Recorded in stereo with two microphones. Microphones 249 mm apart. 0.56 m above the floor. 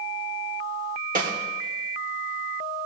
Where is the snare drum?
35° right (ahead or behind), 1.8 m.